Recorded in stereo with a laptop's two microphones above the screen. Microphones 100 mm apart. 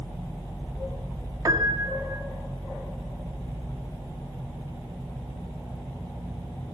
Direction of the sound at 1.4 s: 40° right (ahead or behind).